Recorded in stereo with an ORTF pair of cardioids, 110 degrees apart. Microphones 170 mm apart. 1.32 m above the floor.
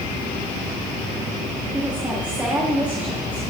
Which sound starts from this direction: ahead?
A woman speaking, at 1.7 s.